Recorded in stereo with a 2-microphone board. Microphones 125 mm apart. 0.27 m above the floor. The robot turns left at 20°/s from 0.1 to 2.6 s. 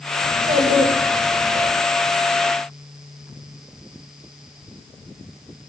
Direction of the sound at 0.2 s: 65° right (ahead or behind).